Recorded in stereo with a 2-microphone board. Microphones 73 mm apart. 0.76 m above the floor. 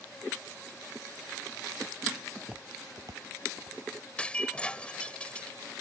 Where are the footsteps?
5° right (ahead or behind); by 3.8 s 65° right (ahead or behind).